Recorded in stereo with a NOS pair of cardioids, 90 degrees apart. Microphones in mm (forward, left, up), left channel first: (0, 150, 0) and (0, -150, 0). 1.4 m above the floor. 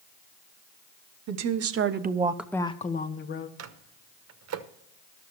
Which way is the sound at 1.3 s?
70° right.